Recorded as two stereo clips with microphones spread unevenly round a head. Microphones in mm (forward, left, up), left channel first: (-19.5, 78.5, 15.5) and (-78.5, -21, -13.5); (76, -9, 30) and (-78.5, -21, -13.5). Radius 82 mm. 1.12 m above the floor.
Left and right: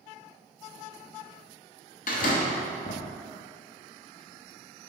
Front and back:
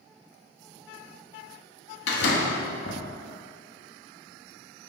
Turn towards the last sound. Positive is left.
turn(degrees=25)